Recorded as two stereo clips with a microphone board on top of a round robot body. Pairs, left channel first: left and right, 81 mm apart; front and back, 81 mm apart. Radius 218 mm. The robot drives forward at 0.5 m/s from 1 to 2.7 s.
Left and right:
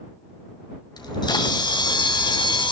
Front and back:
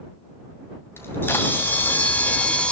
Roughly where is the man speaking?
I don't hear a man speaking.